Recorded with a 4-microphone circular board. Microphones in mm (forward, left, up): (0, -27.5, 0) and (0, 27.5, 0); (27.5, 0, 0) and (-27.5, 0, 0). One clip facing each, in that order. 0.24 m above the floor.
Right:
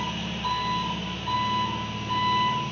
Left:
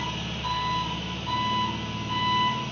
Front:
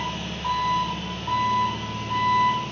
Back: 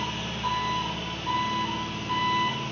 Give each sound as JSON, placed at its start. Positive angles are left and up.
{"t": 0.0, "sound": "an engine running", "azimuth_deg": -175, "distance_m": 1.4}